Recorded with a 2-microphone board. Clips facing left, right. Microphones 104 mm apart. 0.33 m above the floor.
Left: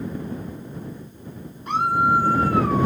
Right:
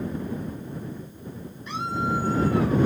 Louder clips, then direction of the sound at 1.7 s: Left 8 dB; 50° left (ahead or behind).